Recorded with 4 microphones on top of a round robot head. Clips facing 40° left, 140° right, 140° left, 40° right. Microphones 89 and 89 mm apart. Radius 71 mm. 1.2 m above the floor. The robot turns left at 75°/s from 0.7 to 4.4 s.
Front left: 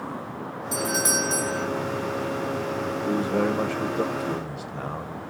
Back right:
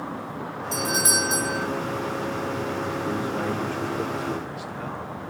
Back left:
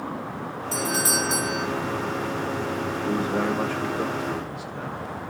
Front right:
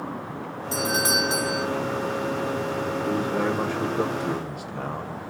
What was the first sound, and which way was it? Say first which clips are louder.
A doorbell: even, front right 2 dB; 40° right.